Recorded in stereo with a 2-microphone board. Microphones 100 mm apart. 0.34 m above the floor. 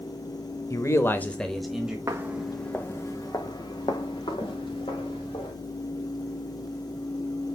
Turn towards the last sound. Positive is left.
turn(degrees=65)  # may be behind; listen again after turning